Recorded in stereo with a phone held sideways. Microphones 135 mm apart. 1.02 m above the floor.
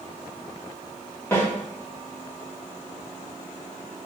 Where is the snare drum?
15° left (ahead or behind), 2 m.